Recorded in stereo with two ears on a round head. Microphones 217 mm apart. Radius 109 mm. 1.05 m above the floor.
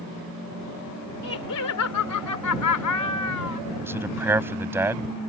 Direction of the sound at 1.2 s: 65° left (ahead or behind).